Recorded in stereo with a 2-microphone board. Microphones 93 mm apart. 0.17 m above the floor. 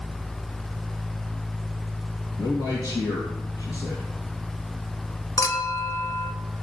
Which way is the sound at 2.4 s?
60° left (ahead or behind).